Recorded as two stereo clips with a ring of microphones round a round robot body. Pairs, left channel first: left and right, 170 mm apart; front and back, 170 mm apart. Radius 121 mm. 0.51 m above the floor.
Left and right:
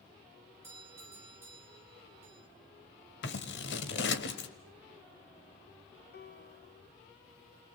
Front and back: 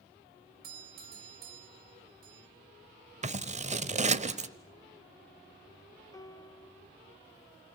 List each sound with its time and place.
0.6 s a doorbell: 165° right, 2.5 m
3.2 s scissors: 130° left, 1.2 m
6.1 s a piano: 70° left, 1.3 m